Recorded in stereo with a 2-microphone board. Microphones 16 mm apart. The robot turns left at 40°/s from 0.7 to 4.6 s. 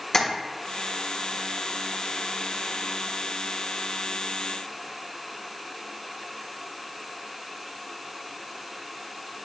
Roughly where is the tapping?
Left.